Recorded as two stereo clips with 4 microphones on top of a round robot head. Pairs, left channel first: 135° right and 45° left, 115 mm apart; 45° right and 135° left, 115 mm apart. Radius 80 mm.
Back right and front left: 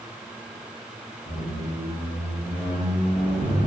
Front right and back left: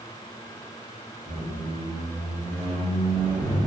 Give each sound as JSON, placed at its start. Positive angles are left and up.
{"t": 1.2, "sound": "a squeak", "azimuth_deg": -120, "distance_m": 0.8}